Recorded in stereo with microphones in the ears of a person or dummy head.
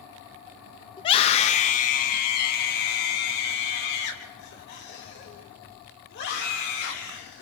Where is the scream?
30° left (ahead or behind), 1.4 m; by 7.4 s 75° left (ahead or behind), 8 m.